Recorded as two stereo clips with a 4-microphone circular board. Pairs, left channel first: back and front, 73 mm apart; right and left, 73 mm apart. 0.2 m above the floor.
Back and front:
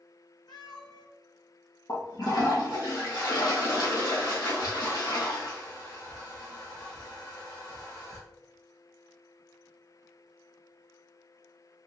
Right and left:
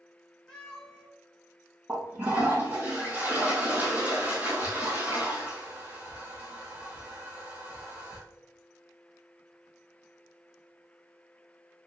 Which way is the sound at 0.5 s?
165° right.